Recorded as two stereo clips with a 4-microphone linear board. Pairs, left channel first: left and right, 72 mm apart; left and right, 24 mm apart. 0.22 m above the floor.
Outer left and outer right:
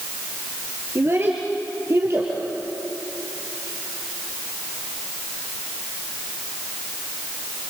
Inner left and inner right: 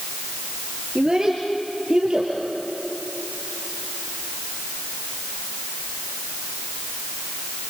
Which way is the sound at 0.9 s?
35° right (ahead or behind).